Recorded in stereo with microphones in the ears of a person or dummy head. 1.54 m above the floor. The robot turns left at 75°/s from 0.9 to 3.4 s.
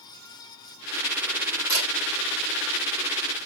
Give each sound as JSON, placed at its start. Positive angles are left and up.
{"t": 1.7, "sound": "a camera shutter", "side_deg": 45, "distance_m": 5.5}